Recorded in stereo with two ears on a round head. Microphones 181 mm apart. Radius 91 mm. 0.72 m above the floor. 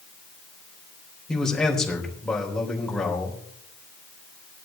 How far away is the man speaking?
About 3 m.